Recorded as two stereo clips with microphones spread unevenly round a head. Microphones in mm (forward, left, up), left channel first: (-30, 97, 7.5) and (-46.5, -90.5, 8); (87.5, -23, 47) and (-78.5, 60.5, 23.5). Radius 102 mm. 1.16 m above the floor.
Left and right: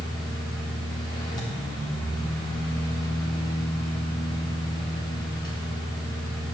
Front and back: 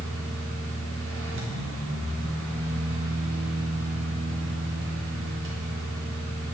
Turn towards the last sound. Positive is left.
turn(degrees=155)